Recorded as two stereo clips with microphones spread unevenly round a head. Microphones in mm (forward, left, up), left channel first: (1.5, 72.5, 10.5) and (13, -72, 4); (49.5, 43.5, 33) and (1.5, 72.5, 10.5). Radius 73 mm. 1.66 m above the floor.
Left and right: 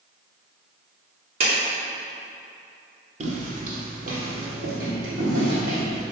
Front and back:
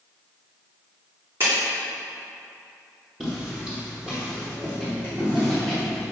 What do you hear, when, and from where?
1.4 s a clap: 135° right, 3 m
3.2 s footsteps: 90° right, 2 m; by 6.0 s 120° right, 5.5 m